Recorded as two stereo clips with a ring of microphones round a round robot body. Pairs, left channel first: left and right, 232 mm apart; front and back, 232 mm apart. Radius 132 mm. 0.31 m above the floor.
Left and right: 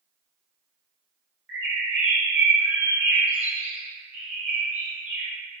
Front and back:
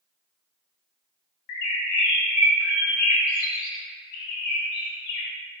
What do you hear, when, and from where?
1.5 s a bird: 5° right, 0.5 m